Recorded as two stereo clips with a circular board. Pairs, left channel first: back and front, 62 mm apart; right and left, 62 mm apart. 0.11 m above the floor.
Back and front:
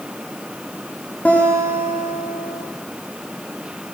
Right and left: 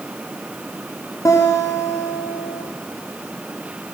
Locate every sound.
1.2 s a guitar: 110° right, 7.5 m